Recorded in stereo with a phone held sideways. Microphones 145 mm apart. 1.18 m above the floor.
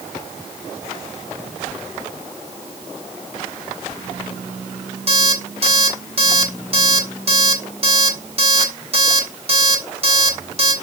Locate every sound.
5.1 s an alarm clock: 45° right (ahead or behind), 1.8 m